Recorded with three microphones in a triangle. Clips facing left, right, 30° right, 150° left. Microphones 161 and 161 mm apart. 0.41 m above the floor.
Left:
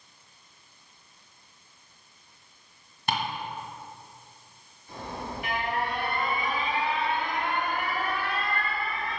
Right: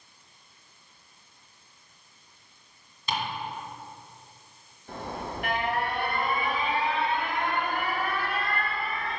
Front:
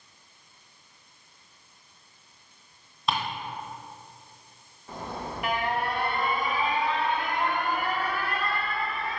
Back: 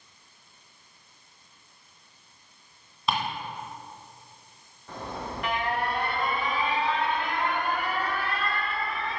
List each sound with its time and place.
3.1 s ticking: 60° left, 1.8 m
4.9 s an alarm: 115° right, 2.5 m